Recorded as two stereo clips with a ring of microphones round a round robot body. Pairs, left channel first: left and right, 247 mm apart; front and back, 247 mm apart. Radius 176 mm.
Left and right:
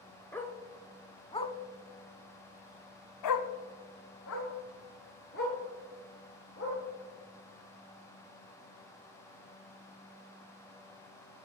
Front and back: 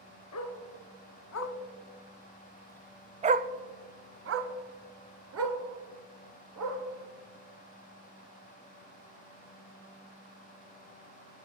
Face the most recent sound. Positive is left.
turn(degrees=160)